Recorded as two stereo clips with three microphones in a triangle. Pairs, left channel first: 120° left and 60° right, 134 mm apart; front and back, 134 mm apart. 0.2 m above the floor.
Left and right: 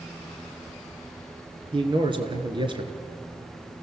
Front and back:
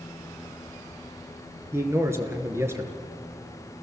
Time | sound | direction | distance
1.7 | a man speaking | 110° right | 2.5 m